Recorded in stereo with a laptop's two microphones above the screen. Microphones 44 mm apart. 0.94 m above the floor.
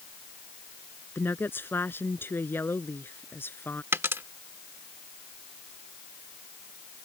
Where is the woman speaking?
55° left (ahead or behind); by 3.8 s 60° left (ahead or behind).